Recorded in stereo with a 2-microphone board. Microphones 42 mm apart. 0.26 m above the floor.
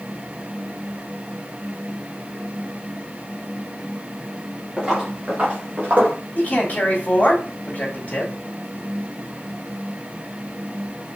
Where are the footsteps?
20° right (ahead or behind), 2 m; by 6.2 s 45° right (ahead or behind), 1.8 m.